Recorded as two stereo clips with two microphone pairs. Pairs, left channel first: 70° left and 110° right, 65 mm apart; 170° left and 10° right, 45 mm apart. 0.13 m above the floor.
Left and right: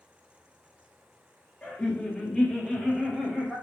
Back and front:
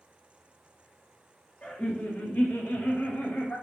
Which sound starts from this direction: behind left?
Laughter, at 1.6 s.